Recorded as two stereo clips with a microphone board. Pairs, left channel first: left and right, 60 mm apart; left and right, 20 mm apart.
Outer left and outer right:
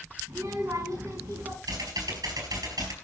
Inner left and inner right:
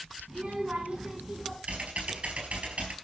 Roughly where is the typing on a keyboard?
Right.